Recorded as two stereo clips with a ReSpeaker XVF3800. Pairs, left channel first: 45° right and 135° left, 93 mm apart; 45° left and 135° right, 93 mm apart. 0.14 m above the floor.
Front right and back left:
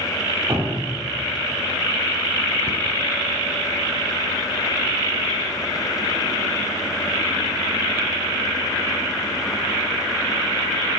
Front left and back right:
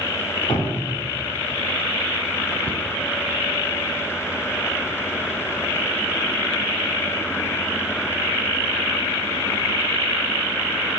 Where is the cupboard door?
105° left, 1.3 m.